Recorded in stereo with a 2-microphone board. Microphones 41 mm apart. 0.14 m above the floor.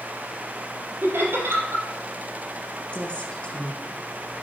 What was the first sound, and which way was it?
Laughter, 65° right (ahead or behind).